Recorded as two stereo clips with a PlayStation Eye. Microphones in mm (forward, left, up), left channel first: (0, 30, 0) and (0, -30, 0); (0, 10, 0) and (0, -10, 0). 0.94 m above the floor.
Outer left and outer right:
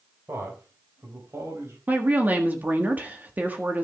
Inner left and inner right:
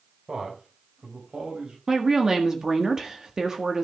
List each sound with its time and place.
0.3 s a man speaking: 50° right (ahead or behind), 4 m; by 1.8 s 55° right (ahead or behind), 5 m
1.9 s a woman speaking: 30° right (ahead or behind), 1.6 m